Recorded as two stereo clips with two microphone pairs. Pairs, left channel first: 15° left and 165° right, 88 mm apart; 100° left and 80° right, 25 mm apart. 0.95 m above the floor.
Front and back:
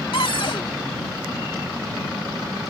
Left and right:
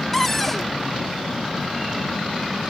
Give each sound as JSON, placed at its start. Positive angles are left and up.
{"t": 0.1, "sound": "a cupboard door", "azimuth_deg": 25}